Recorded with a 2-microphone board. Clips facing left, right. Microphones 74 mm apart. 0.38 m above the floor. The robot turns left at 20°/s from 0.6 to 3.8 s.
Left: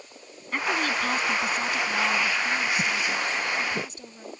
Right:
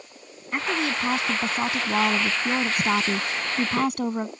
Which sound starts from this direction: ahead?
A woman speaking, at 0.5 s.